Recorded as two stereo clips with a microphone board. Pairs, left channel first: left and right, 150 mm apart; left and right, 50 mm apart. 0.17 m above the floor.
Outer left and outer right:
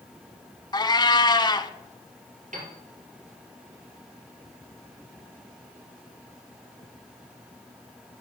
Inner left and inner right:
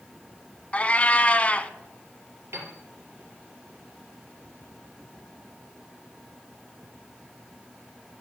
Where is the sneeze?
No sneeze in this recording.